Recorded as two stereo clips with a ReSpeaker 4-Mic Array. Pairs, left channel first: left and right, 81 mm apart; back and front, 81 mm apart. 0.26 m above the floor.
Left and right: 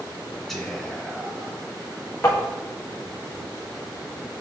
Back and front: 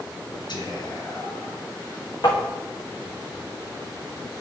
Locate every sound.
0.5 s whispering: straight behind, 2.5 m
2.2 s tapping: 150° left, 3.5 m